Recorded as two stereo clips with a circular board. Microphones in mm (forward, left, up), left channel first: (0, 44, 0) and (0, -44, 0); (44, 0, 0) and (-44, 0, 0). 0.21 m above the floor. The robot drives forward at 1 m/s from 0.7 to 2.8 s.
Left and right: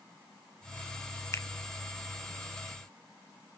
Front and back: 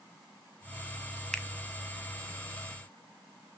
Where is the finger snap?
75° left, 0.9 m; by 1.5 s 95° left, 0.9 m.